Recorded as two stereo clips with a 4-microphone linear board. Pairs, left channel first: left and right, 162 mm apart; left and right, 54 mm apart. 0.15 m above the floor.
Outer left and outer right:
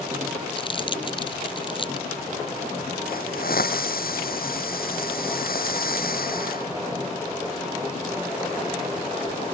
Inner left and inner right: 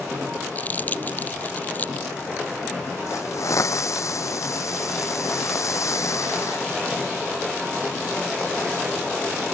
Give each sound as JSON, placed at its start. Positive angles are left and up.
{"t": 0.6, "sound": "crumpling", "side_deg": 30}
{"t": 3.1, "sound": "a hiss", "side_deg": 65}